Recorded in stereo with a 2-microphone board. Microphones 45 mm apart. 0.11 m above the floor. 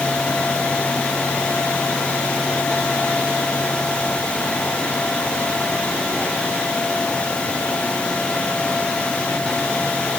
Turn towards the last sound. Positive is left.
No sound to turn to.